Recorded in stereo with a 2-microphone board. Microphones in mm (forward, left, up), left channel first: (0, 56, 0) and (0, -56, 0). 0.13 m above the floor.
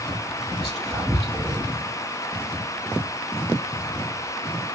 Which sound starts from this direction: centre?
Whispering, at 0.6 s.